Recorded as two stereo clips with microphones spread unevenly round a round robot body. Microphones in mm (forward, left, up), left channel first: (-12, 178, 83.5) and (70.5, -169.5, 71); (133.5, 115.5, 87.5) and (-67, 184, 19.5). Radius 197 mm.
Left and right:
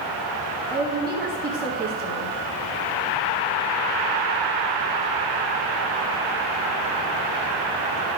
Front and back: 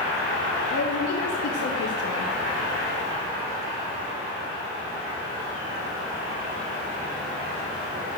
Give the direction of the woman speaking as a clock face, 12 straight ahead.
12 o'clock.